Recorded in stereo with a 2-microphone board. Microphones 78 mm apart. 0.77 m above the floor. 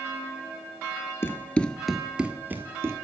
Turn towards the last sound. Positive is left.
turn(degrees=-35)  # may be behind; listen again after turning